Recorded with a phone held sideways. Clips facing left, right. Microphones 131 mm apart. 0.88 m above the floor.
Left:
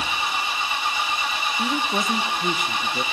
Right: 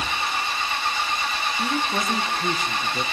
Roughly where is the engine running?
Centre.